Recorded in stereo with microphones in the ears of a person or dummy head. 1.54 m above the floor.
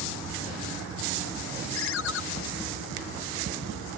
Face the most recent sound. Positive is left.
turn(degrees=75)  # may be behind; listen again after turning